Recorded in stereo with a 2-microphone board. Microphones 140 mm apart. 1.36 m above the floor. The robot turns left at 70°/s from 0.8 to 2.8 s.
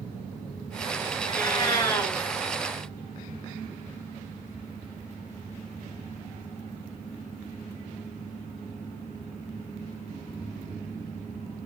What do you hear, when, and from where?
1.3 s a cat meowing: 30° left (ahead or behind), 1.4 m; by 2.1 s 15° left (ahead or behind), 1.4 m